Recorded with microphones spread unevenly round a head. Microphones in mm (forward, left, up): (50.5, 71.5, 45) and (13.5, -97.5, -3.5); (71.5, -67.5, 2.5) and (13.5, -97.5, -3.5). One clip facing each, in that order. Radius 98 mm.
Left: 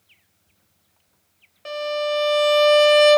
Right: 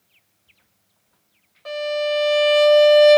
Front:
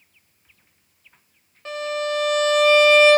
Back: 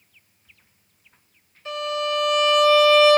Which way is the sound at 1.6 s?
35° left.